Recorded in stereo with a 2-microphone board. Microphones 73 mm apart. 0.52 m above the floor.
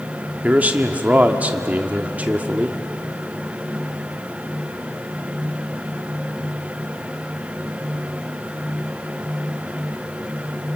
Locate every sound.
0.4 s a man speaking: 20° right (ahead or behind), 1.1 m